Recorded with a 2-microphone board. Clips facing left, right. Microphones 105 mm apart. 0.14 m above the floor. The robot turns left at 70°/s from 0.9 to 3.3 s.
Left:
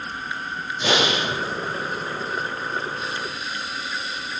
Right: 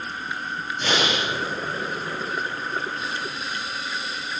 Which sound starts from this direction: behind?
Breathing, at 0.8 s.